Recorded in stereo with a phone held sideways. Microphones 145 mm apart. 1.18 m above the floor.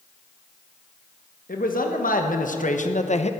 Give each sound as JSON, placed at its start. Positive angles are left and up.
{"t": 1.5, "sound": "a man speaking", "side_deg": 75, "distance_m": 1.5}